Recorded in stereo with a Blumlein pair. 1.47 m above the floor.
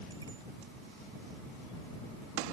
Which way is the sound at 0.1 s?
70° right.